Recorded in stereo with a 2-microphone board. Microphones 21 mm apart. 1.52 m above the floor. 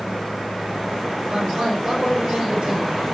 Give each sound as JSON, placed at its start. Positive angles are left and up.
{"t": 1.3, "sound": "a man speaking", "side_deg": -45, "distance_m": 7.5}